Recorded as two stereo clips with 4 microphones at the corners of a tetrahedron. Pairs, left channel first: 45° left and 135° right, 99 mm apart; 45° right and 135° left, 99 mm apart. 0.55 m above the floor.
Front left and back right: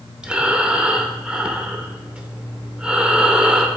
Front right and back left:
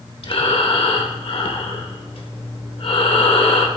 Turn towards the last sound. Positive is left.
turn(degrees=-55)